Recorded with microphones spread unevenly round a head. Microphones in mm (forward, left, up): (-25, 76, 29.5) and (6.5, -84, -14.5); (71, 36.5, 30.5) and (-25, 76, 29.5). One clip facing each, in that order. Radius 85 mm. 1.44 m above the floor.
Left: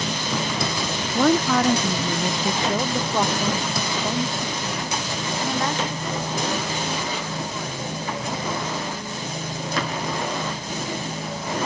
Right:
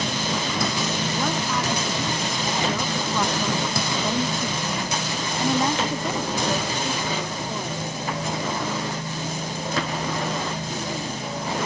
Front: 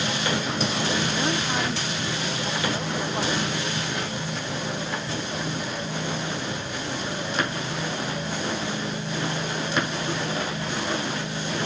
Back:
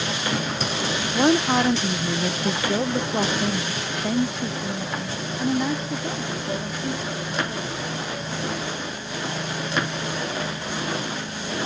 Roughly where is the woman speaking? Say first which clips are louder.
Left 12 dB, back 7 dB; behind left.